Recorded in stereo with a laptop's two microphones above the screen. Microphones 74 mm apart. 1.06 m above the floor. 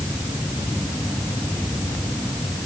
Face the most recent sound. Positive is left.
No sound to turn to.